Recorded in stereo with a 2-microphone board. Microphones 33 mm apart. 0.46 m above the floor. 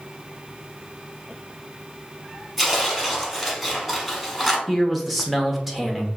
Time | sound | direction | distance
2.6 | tearing paper | centre (ahead or behind) | 1.2 m
4.7 | a man speaking | 5° right (ahead or behind) | 1.0 m